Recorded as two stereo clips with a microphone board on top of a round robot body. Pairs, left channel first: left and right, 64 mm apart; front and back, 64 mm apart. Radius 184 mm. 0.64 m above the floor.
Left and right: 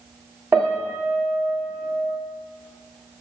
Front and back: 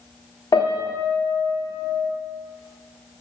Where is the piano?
35° right, 0.9 m.